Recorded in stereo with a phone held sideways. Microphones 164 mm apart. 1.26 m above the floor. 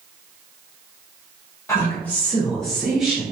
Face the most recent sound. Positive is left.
turn(degrees=-5)  # may be behind; listen again after turning